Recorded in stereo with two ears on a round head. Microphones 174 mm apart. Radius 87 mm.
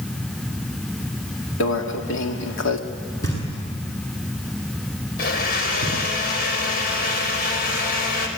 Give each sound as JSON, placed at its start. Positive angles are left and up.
{"t": 1.6, "sound": "a microwave", "side_deg": 70, "distance_m": 2.0}
{"t": 3.2, "sound": "knocking", "side_deg": 15, "distance_m": 8.0}
{"t": 5.2, "sound": "a blender", "side_deg": 50, "distance_m": 4.5}